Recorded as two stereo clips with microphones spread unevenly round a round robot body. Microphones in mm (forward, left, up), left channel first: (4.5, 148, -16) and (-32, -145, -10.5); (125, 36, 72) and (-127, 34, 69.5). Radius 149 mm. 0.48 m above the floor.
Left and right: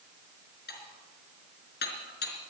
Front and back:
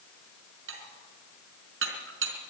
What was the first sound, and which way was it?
Dishes clattering, 140° left.